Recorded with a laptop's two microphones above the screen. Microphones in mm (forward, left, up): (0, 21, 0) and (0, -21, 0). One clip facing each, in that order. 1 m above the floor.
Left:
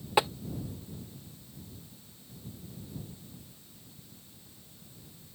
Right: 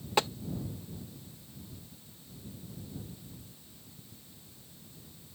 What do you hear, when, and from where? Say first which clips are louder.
0.2 s tapping: left 3 dB; 10° left (ahead or behind)